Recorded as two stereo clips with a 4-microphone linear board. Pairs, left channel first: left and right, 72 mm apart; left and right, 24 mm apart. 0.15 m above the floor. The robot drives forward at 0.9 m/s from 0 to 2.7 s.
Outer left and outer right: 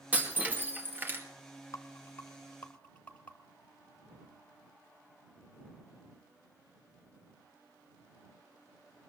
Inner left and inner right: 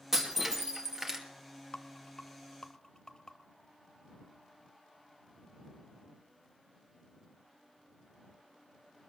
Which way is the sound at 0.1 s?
20° right (ahead or behind).